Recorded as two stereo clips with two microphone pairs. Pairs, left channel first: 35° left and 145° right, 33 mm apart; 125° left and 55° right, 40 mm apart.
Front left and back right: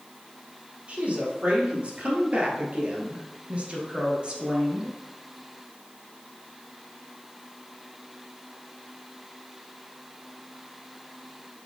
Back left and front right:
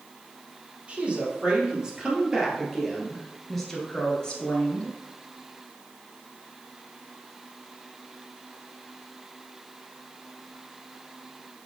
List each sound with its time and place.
0.9 s a woman speaking: 105° right, 2.5 m; by 5.0 s 165° left, 1.9 m